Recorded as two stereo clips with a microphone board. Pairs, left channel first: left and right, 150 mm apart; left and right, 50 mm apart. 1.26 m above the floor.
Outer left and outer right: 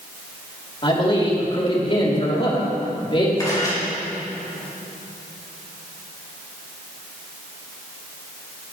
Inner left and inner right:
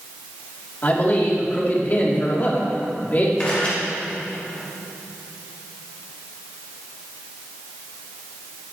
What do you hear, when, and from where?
0.8 s a man speaking: 35° left (ahead or behind), 3.5 m
3.4 s a camera shutter: 25° left (ahead or behind), 4 m